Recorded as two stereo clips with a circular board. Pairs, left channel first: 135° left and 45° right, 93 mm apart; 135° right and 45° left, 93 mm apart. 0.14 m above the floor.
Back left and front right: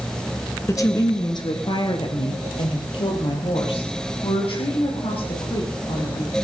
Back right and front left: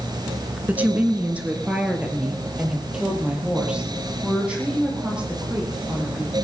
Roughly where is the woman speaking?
Left.